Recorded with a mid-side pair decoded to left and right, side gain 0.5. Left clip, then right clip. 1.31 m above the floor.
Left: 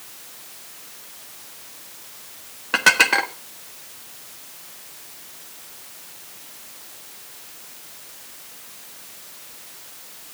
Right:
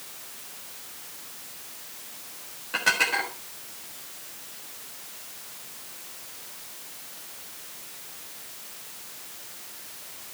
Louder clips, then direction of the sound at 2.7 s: Left 8 dB; 65° left.